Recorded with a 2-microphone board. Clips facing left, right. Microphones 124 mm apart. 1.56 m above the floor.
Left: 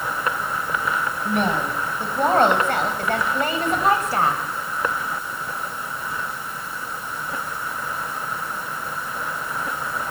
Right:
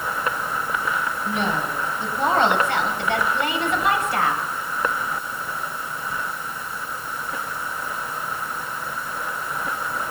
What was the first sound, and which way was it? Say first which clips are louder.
A woman speaking: left 4 dB; 55° left (ahead or behind).